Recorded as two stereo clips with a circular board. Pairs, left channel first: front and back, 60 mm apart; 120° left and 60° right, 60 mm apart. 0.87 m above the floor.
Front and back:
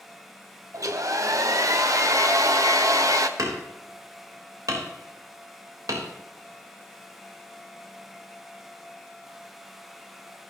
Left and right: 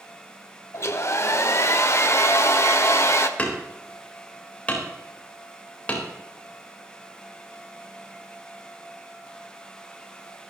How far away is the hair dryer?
About 1.2 m.